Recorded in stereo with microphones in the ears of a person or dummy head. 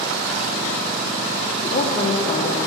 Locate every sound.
1.6 s a woman speaking: 35° left (ahead or behind), 0.9 m